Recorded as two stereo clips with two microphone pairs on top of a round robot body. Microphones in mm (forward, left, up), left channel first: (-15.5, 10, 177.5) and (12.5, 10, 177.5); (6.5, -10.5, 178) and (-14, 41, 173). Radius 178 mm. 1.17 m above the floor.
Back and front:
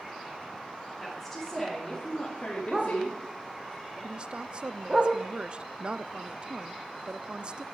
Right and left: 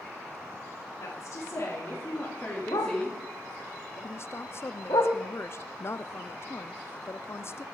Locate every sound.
1.0 s a woman speaking: 90° right, 3.5 m; by 3.2 s 160° right, 3 m
2.7 s a dog barking: 85° right, 0.8 m
4.0 s a woman speaking: 45° right, 0.5 m